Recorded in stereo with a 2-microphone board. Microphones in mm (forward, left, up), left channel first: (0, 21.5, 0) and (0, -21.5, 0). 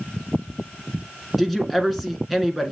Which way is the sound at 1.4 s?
Centre (ahead or behind).